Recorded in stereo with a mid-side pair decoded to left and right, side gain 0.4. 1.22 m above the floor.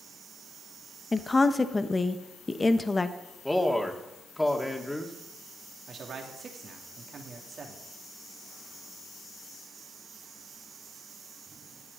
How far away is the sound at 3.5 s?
About 2 m.